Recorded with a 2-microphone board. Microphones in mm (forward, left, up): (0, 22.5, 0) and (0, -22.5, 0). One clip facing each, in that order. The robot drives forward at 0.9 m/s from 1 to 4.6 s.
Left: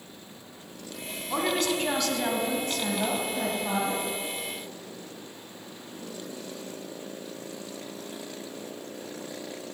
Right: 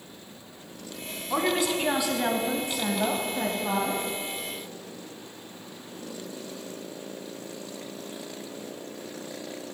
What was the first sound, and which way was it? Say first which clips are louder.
A woman speaking: right 1 dB; 10° right (ahead or behind).